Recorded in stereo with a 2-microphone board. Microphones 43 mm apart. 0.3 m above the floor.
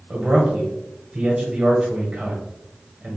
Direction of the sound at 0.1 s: 30° right (ahead or behind).